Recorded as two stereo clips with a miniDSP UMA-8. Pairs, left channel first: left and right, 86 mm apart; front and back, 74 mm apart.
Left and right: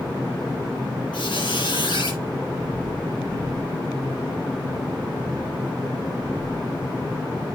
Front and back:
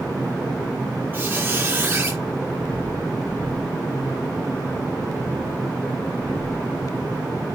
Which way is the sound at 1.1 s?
115° left.